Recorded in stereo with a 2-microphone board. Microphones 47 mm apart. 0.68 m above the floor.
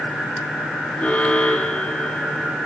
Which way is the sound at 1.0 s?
35° left (ahead or behind).